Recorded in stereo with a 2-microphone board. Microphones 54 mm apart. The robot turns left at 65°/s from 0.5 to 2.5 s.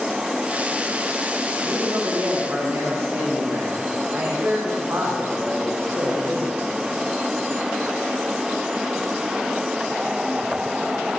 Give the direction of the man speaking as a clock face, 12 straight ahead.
2 o'clock.